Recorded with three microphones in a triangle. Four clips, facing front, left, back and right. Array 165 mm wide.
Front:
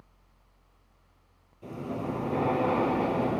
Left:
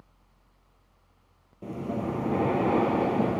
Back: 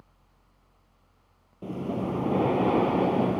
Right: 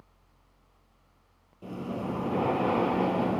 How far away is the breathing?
About 3 m.